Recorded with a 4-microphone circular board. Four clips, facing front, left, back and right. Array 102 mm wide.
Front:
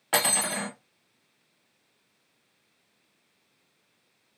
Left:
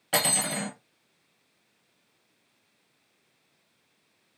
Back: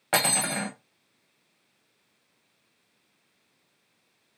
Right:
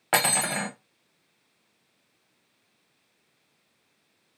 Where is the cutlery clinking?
105° right, 0.8 m.